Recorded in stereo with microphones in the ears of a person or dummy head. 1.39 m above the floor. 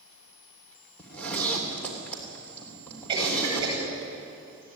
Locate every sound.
1.0 s a zipper: 10° left (ahead or behind), 3 m
3.1 s a cough: 25° right (ahead or behind), 9.5 m